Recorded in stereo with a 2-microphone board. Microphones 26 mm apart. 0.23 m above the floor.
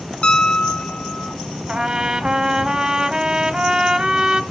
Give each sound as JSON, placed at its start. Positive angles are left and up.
{"t": 0.2, "sound": "a piano", "side_deg": 45, "distance_m": 0.6}
{"t": 1.7, "sound": "a trumpet", "side_deg": -30, "distance_m": 1.0}